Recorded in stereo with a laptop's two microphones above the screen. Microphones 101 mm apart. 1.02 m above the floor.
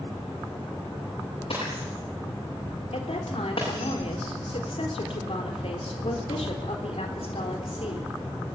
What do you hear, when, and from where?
1.5 s breaking glass: 65° left (ahead or behind), 9.5 m
2.9 s a woman speaking: 80° left, 4 m